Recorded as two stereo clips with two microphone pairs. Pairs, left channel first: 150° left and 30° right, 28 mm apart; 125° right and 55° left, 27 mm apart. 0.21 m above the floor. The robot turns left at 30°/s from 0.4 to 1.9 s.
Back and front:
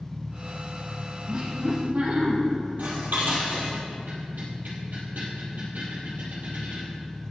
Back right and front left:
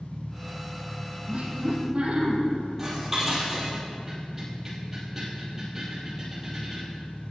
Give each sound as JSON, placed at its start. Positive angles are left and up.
{"t": 0.0, "sound": "an engine running", "azimuth_deg": 50, "distance_m": 0.9}
{"t": 1.3, "sound": "laughter", "azimuth_deg": 25, "distance_m": 5.0}
{"t": 2.8, "sound": "dishes clattering", "azimuth_deg": -20, "distance_m": 4.0}